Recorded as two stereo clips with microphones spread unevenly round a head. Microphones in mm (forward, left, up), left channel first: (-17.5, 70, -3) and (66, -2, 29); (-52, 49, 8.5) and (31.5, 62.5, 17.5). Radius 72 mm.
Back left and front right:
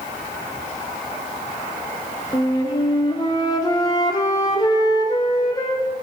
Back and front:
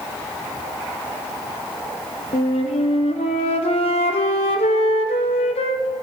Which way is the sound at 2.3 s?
155° right.